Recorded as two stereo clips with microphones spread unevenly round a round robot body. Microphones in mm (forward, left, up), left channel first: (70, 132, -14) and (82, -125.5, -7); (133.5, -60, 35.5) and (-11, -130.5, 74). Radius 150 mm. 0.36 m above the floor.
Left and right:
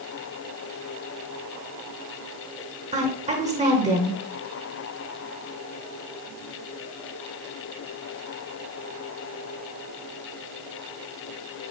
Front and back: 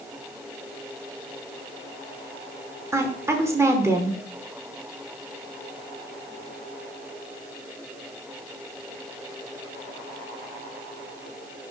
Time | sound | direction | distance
2.9 | a woman speaking | 70° right | 1.2 m